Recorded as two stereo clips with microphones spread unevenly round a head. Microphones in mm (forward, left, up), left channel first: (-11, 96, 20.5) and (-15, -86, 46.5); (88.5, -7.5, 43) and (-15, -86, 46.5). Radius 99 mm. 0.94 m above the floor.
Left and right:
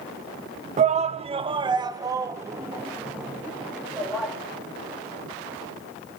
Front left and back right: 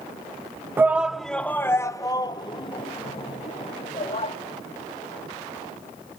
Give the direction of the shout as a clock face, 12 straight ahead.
3 o'clock.